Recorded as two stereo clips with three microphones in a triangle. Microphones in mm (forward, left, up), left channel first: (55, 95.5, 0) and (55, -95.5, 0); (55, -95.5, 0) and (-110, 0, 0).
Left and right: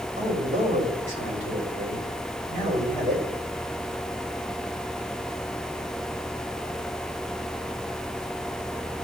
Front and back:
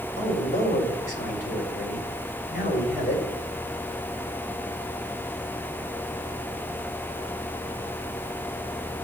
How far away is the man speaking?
About 5 m.